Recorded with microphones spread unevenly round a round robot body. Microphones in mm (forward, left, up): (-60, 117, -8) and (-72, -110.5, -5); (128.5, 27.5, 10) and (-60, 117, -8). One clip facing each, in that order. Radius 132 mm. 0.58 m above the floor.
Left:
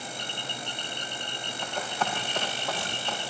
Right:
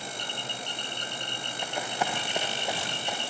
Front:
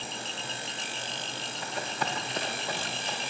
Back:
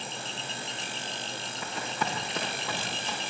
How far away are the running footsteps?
About 7 m.